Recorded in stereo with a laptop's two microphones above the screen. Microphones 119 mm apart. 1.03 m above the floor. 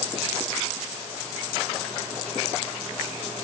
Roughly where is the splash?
I don't hear a splash.